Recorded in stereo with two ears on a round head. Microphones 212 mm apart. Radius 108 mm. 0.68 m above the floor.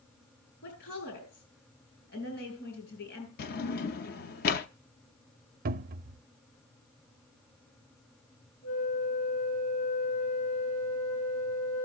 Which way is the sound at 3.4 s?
40° left (ahead or behind).